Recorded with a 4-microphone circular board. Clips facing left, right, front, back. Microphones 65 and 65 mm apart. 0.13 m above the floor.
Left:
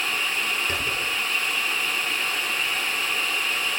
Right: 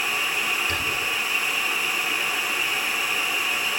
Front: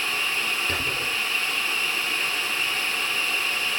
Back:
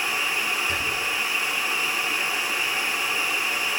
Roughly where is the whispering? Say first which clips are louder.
Right 1 dB, back 1 dB; ahead left.